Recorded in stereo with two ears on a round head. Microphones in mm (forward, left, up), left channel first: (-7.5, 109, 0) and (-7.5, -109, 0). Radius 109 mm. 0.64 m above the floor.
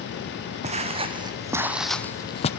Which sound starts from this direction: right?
Footsteps, at 0.6 s.